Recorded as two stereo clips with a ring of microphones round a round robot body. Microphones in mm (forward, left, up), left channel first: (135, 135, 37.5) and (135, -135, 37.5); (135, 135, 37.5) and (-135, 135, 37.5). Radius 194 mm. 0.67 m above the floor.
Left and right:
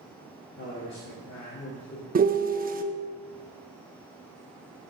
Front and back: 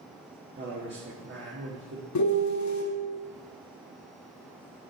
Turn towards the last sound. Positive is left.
turn(degrees=-30)